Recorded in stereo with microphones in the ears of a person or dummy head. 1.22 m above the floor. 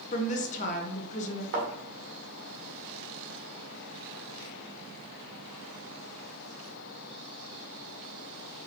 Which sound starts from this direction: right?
A thud, at 1.5 s.